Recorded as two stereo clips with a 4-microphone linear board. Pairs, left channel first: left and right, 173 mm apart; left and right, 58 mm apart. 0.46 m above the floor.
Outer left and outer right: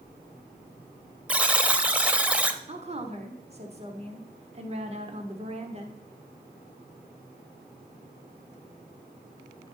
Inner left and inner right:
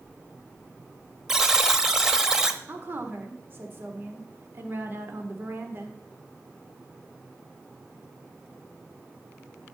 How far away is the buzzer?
About 0.8 m.